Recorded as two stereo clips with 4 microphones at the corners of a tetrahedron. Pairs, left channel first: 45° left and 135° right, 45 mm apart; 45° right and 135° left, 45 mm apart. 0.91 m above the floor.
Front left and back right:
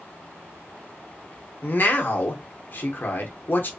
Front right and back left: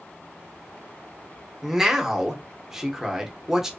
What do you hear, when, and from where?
1.6 s a man speaking: 55° left, 0.7 m